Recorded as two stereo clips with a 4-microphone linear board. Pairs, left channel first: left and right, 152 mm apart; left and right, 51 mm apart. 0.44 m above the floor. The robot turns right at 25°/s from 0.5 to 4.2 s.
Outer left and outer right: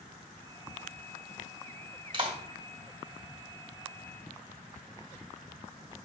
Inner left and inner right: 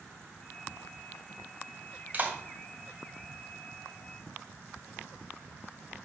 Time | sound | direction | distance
2.1 | a clap | 30° right (ahead or behind) | 2.5 m